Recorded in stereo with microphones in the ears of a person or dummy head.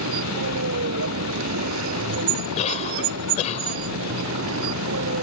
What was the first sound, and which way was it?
A vehicle, 75° right (ahead or behind).